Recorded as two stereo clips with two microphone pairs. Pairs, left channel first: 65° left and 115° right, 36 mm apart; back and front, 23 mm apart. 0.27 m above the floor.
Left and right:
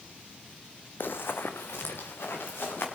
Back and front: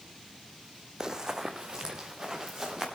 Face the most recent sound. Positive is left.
turn(degrees=70)